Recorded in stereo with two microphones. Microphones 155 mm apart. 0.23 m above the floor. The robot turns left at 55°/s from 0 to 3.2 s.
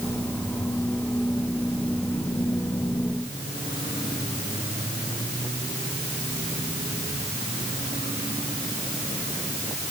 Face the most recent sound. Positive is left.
No sound to turn to.